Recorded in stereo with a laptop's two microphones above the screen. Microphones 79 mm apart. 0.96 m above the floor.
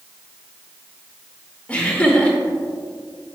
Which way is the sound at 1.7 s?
20° left (ahead or behind).